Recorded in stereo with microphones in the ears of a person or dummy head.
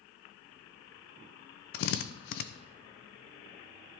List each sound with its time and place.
1.7 s a drill: 60° left (ahead or behind), 0.7 m